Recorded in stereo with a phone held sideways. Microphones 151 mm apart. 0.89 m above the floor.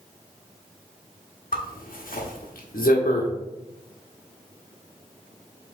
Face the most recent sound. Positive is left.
turn(degrees=75)  # may be behind; listen again after turning